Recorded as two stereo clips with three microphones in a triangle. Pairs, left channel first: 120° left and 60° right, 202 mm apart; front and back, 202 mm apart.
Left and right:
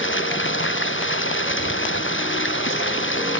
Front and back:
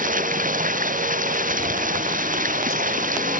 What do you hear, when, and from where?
0.0 s running water: 130° left